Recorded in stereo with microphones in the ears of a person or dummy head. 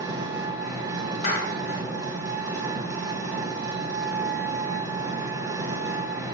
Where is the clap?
60° left (ahead or behind), 1.4 m.